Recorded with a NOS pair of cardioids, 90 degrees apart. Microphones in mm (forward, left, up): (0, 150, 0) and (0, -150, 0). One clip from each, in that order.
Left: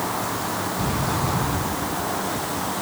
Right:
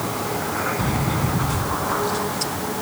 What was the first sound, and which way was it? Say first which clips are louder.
A sliding door: even; 20° right.